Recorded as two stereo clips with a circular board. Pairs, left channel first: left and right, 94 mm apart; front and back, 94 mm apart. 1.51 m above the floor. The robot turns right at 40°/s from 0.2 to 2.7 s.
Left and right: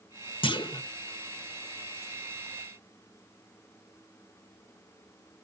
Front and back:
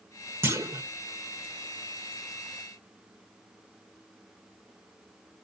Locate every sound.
0.4 s a clunk: 115° left, 1.0 m; by 0.8 s 130° left, 1.0 m